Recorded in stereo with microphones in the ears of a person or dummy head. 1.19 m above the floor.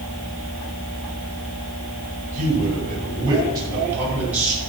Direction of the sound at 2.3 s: 40° right (ahead or behind).